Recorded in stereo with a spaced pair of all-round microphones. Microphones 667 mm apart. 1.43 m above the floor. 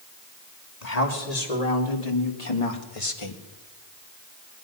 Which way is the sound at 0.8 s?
85° left.